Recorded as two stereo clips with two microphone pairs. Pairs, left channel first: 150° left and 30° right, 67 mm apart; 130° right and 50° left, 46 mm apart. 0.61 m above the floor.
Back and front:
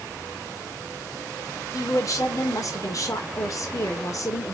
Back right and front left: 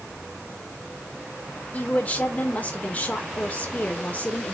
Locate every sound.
1.7 s a woman speaking: 175° left, 1.9 m